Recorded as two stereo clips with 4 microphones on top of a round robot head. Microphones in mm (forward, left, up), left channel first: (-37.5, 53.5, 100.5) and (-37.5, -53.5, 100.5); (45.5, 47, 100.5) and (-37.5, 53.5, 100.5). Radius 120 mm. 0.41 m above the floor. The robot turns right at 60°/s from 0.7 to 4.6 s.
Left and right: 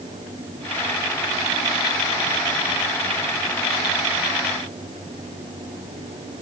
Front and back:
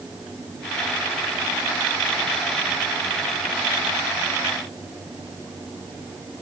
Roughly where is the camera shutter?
No camera shutter in this recording.